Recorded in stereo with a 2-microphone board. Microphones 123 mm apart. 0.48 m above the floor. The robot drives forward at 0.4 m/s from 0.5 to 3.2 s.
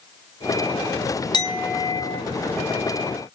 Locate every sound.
1.3 s a clink: 35° left (ahead or behind), 0.6 m; by 2.2 s 30° left (ahead or behind), 0.7 m